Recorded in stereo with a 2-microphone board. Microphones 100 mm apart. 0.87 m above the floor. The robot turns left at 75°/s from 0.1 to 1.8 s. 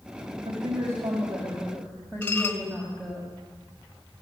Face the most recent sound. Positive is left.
turn(degrees=20)  # may be behind; listen again after turning